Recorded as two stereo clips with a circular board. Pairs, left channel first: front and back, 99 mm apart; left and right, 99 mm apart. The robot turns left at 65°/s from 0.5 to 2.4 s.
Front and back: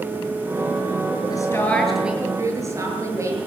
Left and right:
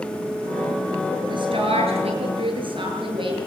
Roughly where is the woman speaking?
Ahead right.